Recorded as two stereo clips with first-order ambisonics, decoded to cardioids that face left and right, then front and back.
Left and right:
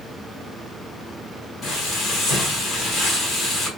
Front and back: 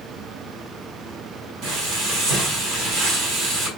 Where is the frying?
155° left, 1.5 m.